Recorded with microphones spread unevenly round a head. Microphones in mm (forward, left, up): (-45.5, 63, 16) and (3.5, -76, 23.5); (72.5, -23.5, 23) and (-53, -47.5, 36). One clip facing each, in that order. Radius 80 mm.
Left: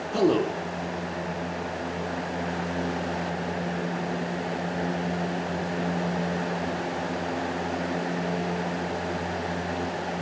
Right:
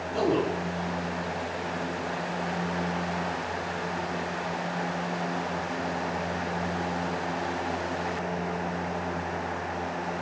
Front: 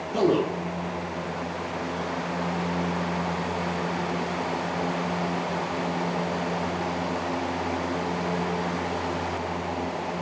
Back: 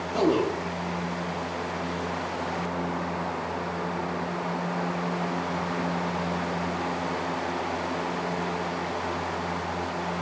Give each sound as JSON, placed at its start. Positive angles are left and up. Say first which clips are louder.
{"t": 0.1, "sound": "a man speaking", "louder": "left 3 dB, front 1 dB", "azimuth_deg": 100, "distance_m": 1.0}